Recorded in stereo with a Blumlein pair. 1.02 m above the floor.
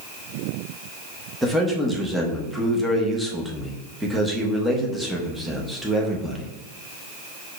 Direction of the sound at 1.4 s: 5° right.